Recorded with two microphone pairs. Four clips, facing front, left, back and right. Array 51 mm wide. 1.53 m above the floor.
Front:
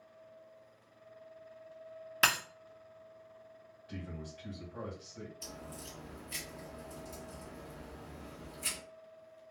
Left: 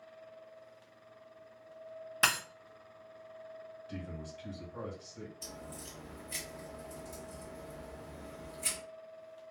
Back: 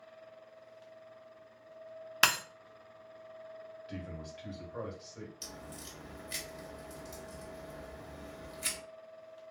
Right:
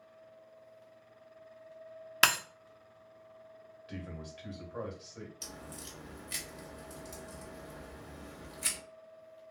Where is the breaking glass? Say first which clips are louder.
Right 3 dB, back 1 dB; 115° right, 0.9 m.